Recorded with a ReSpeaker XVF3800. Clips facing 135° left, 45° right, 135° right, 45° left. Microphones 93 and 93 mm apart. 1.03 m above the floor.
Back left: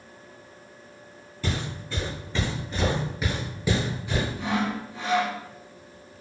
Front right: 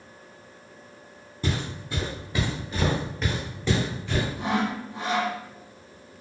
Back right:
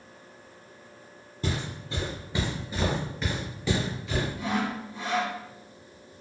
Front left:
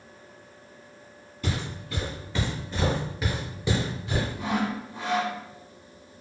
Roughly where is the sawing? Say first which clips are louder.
Front right 1 dB, front left 1 dB; ahead.